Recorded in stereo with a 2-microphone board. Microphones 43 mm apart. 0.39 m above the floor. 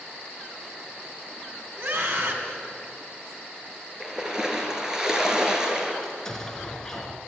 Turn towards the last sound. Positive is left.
turn(degrees=10)  # may be behind; listen again after turning